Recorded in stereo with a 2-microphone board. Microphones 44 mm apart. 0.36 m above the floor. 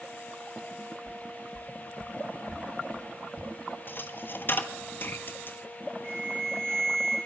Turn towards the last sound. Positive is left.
turn(degrees=-70)  # may be behind; listen again after turning